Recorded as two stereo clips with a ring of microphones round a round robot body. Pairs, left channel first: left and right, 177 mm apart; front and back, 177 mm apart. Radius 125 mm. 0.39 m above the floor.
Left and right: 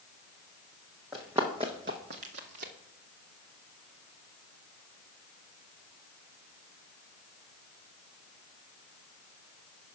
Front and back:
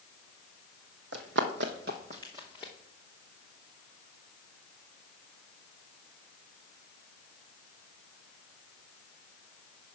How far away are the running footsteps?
About 1.1 m.